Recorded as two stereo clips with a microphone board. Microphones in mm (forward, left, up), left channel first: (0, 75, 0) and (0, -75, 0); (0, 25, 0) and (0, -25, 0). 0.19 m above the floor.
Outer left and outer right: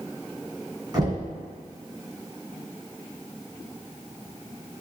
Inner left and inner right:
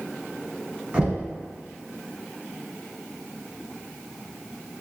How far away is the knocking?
About 1.4 m.